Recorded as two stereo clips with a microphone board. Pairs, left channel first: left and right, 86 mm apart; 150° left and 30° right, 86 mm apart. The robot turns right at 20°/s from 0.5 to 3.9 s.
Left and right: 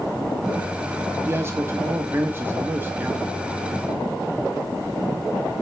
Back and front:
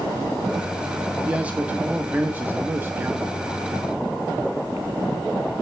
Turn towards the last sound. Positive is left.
turn(degrees=-40)